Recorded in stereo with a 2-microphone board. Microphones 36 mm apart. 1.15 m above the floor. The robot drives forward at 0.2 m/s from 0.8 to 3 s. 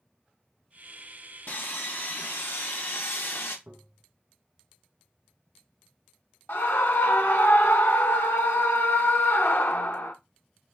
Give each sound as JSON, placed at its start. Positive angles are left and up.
{"t": 1.5, "sound": "sawing", "side_deg": 60, "distance_m": 1.1}
{"t": 3.7, "sound": "tapping", "side_deg": -65, "distance_m": 1.2}
{"t": 6.5, "sound": "a scream", "side_deg": 75, "distance_m": 0.9}